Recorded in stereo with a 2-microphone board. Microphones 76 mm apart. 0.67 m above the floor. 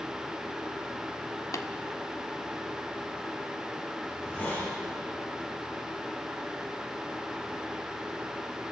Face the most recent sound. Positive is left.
turn(degrees=25)  # may be behind; listen again after turning